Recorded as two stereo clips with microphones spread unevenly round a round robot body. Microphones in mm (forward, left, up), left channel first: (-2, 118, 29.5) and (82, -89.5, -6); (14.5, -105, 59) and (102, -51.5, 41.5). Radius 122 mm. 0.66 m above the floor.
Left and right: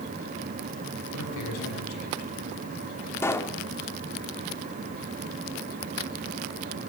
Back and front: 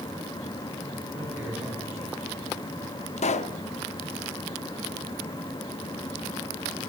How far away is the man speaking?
About 6 m.